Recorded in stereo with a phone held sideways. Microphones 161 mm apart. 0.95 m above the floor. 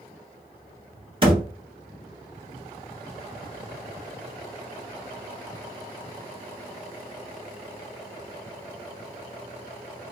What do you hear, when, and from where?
1.2 s a thud: 35° right (ahead or behind), 1.2 m